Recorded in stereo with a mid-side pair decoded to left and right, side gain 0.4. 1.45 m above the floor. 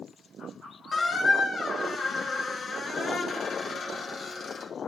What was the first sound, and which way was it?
A squeak, 55° left.